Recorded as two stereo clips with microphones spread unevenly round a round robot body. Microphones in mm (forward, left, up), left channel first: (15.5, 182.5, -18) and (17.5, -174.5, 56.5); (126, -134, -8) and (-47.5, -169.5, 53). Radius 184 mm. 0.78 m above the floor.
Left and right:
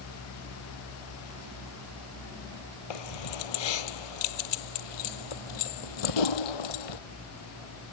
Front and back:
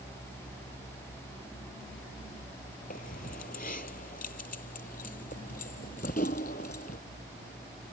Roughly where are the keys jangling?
Left.